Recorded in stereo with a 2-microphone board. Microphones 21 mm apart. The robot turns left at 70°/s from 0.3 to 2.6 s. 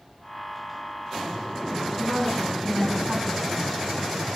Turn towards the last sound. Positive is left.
turn(degrees=45)